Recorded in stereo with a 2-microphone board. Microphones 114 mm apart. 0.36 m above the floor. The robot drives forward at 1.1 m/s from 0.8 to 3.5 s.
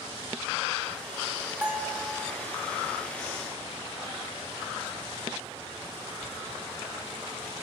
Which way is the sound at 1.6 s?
15° right (ahead or behind).